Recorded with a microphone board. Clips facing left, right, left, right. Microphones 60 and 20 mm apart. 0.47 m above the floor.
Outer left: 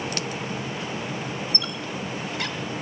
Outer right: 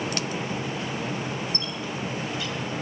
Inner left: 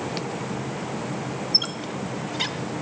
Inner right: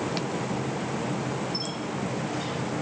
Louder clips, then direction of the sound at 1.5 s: Even, inner left 6 dB; 65° left (ahead or behind).